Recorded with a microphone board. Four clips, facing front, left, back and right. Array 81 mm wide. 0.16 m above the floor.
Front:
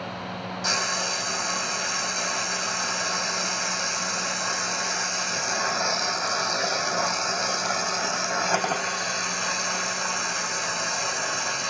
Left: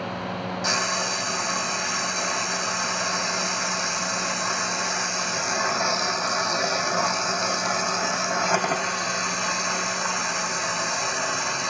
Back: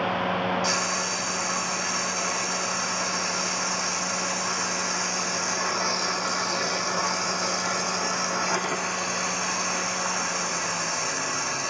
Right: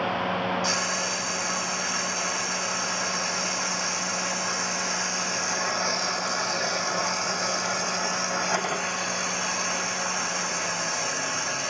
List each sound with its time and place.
0.6 s frying: 40° left, 5 m